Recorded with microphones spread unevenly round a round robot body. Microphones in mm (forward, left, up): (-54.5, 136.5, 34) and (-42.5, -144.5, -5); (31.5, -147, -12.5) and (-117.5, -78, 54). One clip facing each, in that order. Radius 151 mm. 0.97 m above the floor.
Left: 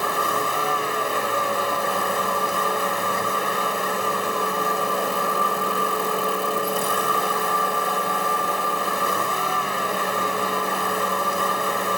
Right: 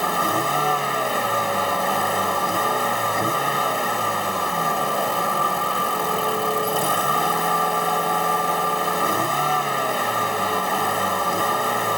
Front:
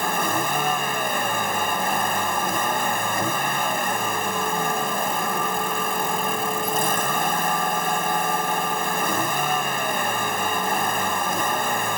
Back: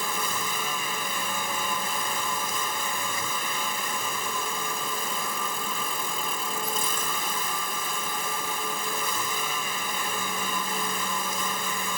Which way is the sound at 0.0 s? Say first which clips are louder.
Right 1 dB, front 8 dB; 55° right.